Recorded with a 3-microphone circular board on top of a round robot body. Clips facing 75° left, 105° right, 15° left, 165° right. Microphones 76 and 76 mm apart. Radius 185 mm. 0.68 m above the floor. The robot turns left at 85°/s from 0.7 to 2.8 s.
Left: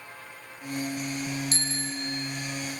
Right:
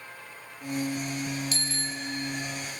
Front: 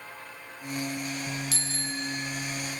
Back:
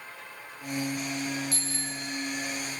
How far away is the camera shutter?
I don't hear a camera shutter.